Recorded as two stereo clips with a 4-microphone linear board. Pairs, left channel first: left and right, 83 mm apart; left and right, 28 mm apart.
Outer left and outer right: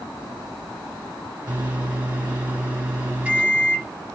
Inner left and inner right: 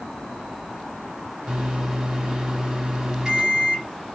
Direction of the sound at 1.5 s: 20° right (ahead or behind).